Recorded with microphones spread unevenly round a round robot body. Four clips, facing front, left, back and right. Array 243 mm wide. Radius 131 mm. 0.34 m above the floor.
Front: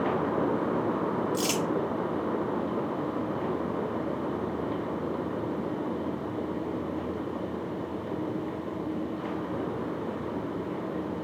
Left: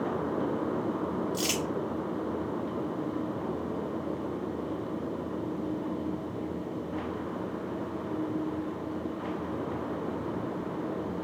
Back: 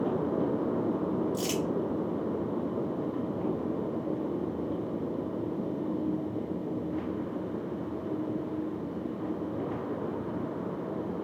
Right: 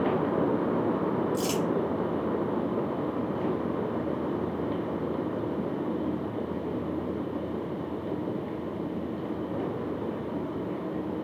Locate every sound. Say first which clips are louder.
1.3 s crumpling: right 4 dB, front 2 dB; 50° left, 2.5 m